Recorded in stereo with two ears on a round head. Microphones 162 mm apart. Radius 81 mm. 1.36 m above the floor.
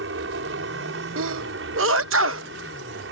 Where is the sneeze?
80° right.